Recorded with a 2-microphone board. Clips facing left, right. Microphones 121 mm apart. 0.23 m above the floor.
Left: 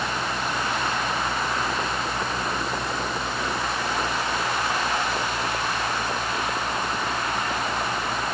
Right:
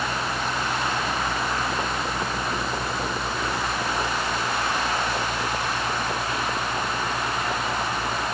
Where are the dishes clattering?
No dishes clattering in this recording.